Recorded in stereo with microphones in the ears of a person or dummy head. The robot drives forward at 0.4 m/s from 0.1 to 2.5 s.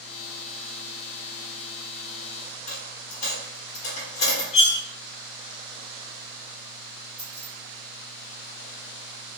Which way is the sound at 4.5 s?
40° left (ahead or behind).